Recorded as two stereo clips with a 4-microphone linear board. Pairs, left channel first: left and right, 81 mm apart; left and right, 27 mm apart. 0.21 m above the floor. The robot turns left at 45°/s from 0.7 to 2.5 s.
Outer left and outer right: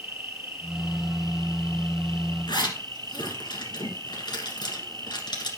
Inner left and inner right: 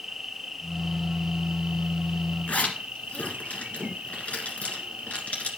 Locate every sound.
0.0 s an insect: 25° right, 1.3 m; by 5.6 s 105° right, 1.3 m
2.5 s a zipper: 65° left (ahead or behind), 1.9 m